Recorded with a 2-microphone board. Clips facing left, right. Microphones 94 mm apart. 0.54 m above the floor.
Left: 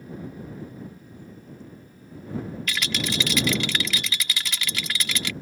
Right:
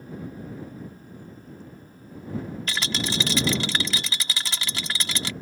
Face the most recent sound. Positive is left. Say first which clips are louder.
# even
turn(degrees=-30)  # may be behind; listen again after turning